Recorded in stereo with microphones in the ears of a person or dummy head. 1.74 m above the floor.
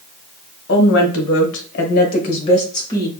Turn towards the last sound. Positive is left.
turn(degrees=25)  # may be behind; listen again after turning